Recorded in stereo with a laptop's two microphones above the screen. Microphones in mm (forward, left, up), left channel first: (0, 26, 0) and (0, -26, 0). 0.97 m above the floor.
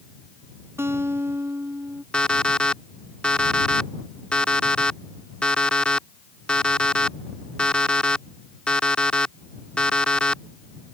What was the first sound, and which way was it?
A guitar, 55° right (ahead or behind).